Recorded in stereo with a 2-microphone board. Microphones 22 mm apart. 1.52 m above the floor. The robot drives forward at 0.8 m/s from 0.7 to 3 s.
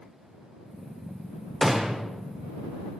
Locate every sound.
1.6 s a gunshot: 20° right (ahead or behind), 0.6 m